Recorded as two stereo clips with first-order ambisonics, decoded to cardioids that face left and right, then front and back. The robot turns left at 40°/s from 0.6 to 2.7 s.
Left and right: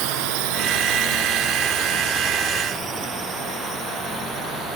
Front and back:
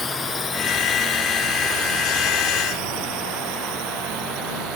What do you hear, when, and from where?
0.0 s a drone: 75° right; by 4.8 s 155° right